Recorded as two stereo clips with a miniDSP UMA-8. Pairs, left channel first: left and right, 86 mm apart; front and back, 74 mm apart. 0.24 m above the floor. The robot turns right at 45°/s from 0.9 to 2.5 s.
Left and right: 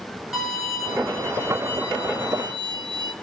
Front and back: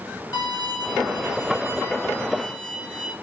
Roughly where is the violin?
Ahead.